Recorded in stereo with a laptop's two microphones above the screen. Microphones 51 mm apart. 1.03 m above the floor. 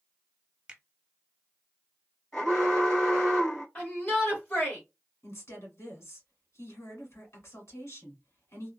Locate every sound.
0.7 s a finger snap: 20° right (ahead or behind), 1.0 m
2.3 s an alarm: 15° left (ahead or behind), 1.5 m
3.8 s a shout: 20° left (ahead or behind), 1.5 m
5.2 s a woman speaking: 65° left (ahead or behind), 1.8 m